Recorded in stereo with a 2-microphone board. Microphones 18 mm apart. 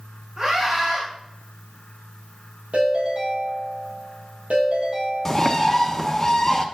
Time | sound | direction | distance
0.4 | a scream | 40° right (ahead or behind) | 5.5 m
2.7 | a ringtone | 80° right | 4.5 m
5.2 | a bird | 25° left (ahead or behind) | 1.1 m